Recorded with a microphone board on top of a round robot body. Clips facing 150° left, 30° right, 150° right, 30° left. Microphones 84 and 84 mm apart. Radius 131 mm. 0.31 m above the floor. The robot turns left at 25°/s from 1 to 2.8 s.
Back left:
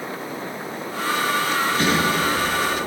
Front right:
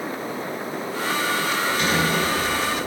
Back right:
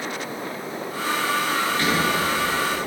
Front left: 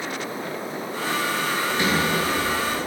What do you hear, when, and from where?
1.6 s a sliding door: 105° left, 3 m; by 2.8 s 75° left, 3 m